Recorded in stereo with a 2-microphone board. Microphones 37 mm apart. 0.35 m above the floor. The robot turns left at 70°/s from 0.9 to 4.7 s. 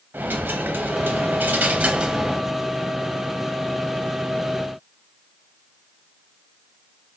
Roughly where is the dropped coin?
Right.